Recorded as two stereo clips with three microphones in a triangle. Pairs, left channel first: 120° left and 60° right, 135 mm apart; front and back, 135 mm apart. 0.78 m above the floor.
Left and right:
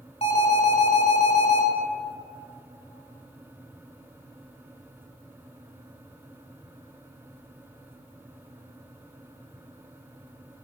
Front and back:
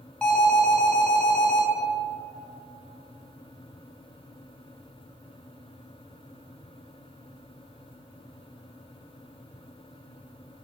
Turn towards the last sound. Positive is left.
turn(degrees=80)